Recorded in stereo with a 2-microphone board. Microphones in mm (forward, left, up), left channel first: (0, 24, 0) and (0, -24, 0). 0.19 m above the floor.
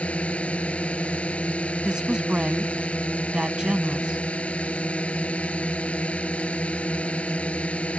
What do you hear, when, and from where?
0.0 s a drone: 25° left (ahead or behind)
1.8 s a woman speaking: 20° right (ahead or behind)